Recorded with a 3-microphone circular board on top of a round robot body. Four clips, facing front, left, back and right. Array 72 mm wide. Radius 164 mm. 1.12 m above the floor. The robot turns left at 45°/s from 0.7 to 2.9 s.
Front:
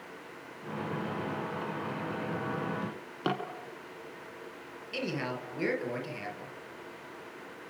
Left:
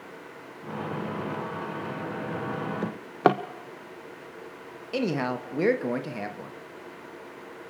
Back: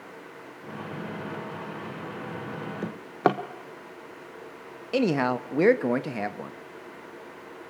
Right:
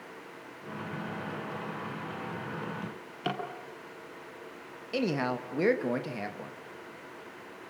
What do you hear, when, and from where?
2.8 s a drawer: 130° left, 0.8 m; by 3.4 s 125° left, 0.8 m
4.9 s a man speaking: straight behind, 2.0 m